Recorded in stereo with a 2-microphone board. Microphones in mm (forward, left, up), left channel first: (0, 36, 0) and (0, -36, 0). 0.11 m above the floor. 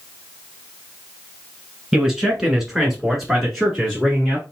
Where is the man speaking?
5° right (ahead or behind), 1.1 m; by 4.4 s centre (ahead or behind), 1.5 m.